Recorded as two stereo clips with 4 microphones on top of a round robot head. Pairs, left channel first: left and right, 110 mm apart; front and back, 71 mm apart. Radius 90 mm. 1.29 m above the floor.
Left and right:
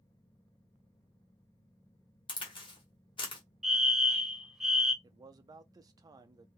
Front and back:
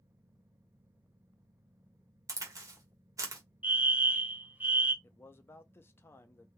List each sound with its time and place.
2.3 s a crack: 135° left, 1.2 m
3.6 s a fire alarm: 170° right, 0.8 m
5.0 s a man speaking: 45° right, 0.5 m